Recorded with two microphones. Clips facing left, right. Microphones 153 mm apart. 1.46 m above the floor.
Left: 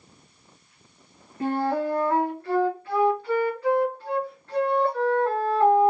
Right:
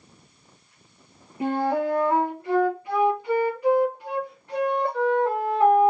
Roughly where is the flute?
Centre.